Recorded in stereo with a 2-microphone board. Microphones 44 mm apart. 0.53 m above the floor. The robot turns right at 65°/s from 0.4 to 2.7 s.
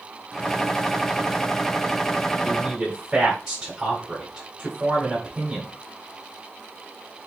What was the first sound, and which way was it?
A man speaking, 5° left (ahead or behind).